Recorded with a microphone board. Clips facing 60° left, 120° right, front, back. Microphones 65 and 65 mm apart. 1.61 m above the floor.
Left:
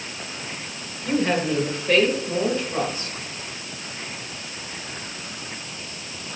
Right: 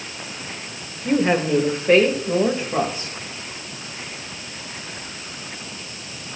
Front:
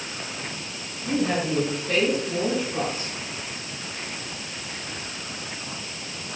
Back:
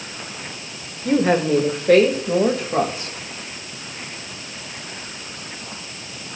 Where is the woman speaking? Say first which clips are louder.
Right 3 dB, back 7 dB; 170° left, 1.7 m; by 3.1 s 175° left, 2.5 m.